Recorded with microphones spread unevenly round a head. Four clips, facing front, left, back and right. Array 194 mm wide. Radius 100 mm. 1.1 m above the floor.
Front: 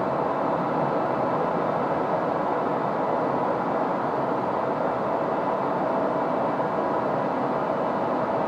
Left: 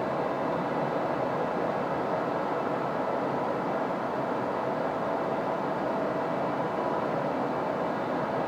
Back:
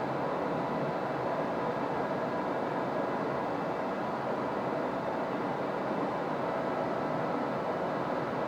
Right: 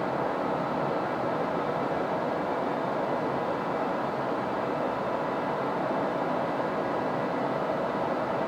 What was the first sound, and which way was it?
Only background noise.